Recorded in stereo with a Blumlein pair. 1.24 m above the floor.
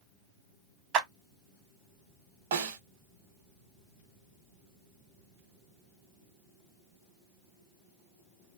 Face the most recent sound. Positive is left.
turn(degrees=-55)